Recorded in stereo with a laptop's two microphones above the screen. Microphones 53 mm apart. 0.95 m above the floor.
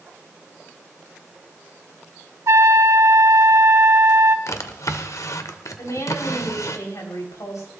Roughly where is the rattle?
I don't hear a rattle.